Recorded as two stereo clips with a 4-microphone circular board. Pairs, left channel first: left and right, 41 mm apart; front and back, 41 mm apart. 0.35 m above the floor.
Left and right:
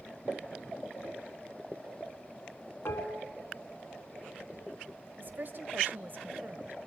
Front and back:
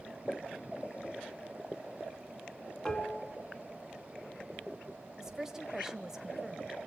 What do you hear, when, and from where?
2.9 s dishes clattering: 80° left, 2 m
5.2 s a woman speaking: 105° right, 1.3 m